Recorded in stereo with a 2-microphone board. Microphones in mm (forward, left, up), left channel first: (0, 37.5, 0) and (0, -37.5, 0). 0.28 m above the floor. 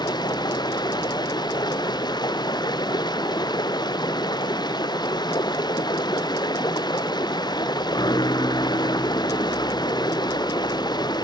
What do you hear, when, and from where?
0.0 s running water: 75° left (ahead or behind)